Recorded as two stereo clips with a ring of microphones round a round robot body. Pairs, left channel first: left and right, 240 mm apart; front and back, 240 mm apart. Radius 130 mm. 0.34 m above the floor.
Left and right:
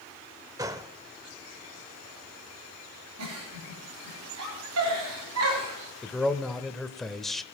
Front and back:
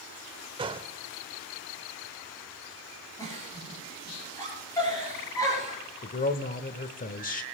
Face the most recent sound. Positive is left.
turn(degrees=0)